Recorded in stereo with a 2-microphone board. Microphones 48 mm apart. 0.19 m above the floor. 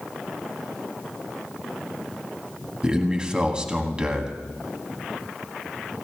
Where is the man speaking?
20° right (ahead or behind), 1.5 m.